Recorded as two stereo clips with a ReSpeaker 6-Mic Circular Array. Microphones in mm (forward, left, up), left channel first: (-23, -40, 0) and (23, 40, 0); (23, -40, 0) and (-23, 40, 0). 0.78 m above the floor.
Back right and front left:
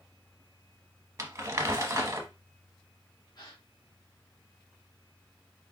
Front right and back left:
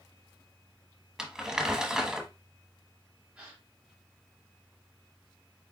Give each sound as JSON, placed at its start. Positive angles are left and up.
{"t": 1.2, "sound": "crumpling", "azimuth_deg": 40, "distance_m": 1.1}
{"t": 3.4, "sound": "a gasp", "azimuth_deg": -160, "distance_m": 1.7}